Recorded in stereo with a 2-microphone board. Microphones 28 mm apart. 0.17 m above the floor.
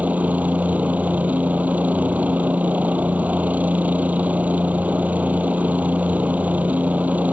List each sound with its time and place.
0.0 s a helicopter: 75° right (ahead or behind)